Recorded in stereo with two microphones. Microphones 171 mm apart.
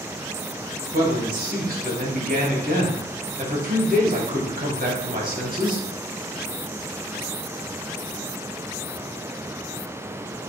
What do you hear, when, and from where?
0.9 s a man speaking: 60° right (ahead or behind), 3 m